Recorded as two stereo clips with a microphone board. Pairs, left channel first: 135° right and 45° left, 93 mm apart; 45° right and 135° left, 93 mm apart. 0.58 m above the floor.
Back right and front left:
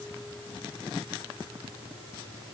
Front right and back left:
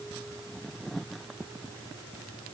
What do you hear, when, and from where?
Only background noise.